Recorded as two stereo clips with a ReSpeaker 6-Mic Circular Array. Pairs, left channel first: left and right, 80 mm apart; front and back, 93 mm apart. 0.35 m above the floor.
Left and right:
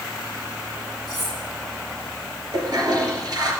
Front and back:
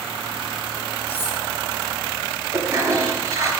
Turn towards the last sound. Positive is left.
turn(degrees=-125)